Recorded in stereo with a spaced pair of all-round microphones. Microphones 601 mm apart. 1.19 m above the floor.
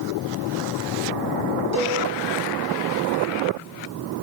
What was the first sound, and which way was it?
A cowbell, 25° left (ahead or behind).